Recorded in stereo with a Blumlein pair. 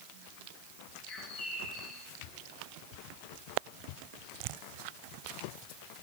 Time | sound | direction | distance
1.1 | a bird | 30° left | 5.5 m